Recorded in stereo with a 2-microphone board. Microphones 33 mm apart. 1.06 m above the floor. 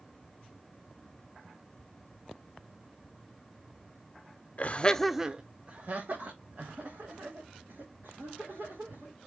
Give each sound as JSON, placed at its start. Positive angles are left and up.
{"t": 4.6, "sound": "laughter", "side_deg": 50, "distance_m": 0.7}